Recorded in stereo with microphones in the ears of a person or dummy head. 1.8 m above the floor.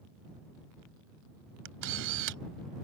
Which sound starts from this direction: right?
A camera shutter, at 1.6 s.